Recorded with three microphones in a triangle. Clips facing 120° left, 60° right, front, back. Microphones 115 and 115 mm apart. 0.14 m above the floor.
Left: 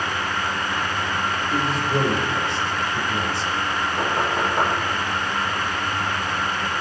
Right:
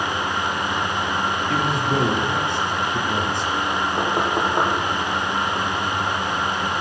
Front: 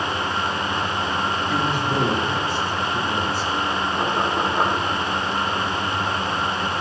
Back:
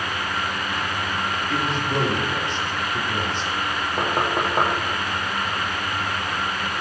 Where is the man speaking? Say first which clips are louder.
Even, even; 80° right, 3 m.